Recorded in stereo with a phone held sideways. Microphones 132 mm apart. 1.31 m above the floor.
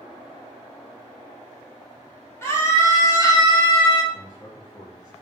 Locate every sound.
2.4 s a scream: 20° left (ahead or behind), 3.5 m; by 4.0 s 45° left (ahead or behind), 2.5 m
4.1 s a man speaking: 30° left (ahead or behind), 2.5 m